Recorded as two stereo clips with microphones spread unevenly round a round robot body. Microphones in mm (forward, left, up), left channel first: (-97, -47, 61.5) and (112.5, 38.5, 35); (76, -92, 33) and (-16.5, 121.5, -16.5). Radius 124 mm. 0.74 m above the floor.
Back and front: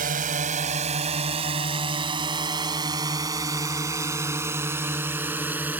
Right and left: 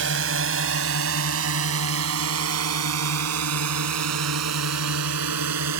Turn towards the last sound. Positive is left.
turn(degrees=105)